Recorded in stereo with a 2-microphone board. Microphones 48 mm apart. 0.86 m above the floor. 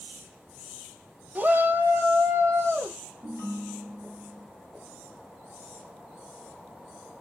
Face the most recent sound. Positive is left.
turn(degrees=-75)  # may be behind; listen again after turning